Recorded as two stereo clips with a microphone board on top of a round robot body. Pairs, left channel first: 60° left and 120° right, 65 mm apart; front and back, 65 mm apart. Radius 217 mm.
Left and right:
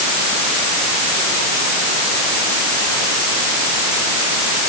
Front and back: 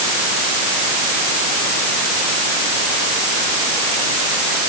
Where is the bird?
I don't hear a bird.